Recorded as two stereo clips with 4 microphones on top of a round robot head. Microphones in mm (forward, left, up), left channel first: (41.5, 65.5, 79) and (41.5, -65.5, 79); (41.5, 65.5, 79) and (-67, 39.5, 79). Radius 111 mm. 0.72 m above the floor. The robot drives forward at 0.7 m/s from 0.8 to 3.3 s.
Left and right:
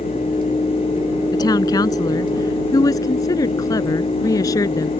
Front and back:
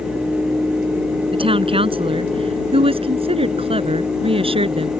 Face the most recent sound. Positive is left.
turn(degrees=160)